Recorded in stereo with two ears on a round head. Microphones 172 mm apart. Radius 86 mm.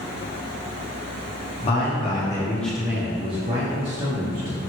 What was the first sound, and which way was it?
A man speaking, 30° left (ahead or behind).